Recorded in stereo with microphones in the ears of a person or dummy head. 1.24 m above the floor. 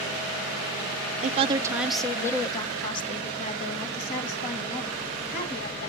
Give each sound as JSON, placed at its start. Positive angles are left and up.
{"t": 1.2, "sound": "a woman speaking", "side_deg": -45, "distance_m": 0.5}